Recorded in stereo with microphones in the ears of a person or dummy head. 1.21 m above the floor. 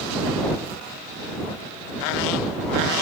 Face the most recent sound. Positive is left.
No sound to turn to.